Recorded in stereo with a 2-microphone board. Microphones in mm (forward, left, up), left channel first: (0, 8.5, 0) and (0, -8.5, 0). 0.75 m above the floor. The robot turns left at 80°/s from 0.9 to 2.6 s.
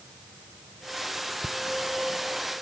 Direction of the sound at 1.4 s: 75° right (ahead or behind).